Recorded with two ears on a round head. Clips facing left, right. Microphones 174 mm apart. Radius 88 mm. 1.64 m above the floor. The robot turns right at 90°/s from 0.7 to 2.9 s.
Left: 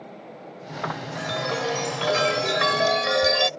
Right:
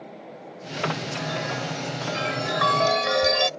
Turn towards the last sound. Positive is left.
turn(degrees=180)